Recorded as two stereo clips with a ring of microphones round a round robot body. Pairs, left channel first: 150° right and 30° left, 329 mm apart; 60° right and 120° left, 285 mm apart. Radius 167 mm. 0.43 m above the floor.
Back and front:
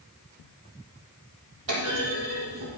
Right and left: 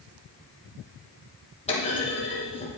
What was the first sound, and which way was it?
A clunk, 5° left.